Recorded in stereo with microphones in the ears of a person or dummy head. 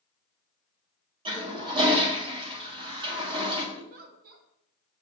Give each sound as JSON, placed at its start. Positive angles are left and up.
{"t": 1.2, "sound": "a toilet flushing", "side_deg": -30, "distance_m": 1.7}
{"t": 3.8, "sound": "a giggle", "side_deg": -50, "distance_m": 1.0}